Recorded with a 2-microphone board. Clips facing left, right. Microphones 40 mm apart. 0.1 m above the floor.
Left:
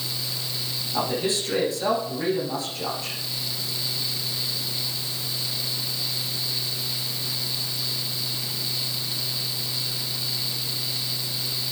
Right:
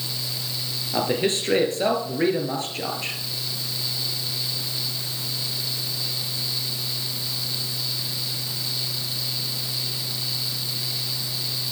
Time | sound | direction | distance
0.9 | a man speaking | 45° right (ahead or behind) | 2 m